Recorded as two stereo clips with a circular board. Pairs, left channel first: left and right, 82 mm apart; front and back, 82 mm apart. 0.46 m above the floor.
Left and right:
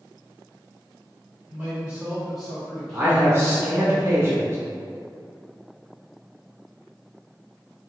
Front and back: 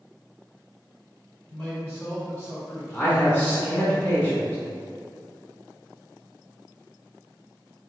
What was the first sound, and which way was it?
A man speaking, 45° right.